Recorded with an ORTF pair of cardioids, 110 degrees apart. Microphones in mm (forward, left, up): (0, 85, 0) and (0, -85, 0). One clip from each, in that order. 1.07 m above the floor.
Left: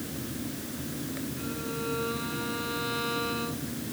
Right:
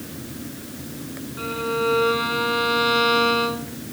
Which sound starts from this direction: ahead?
A fan, at 0.0 s.